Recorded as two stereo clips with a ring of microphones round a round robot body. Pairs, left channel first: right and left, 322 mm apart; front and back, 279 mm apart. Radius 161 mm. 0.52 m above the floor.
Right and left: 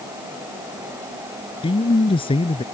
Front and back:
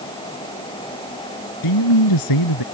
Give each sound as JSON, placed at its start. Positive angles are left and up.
{"t": 1.6, "sound": "a man speaking", "azimuth_deg": -15}